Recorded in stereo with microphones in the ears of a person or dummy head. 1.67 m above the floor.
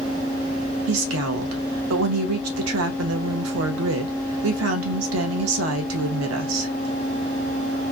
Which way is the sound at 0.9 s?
85° right.